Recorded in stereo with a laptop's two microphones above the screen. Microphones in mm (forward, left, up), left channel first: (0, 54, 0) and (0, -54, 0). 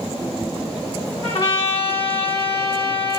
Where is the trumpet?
60° left (ahead or behind), 1.1 m.